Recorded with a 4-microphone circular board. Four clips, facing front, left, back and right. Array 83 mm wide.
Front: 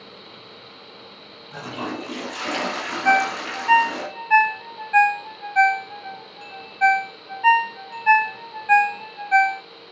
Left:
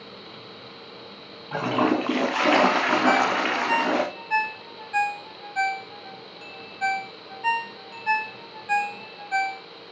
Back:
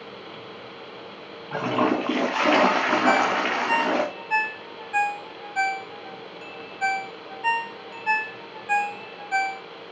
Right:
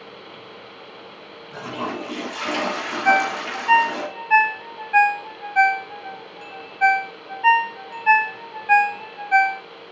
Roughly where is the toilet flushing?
Behind left.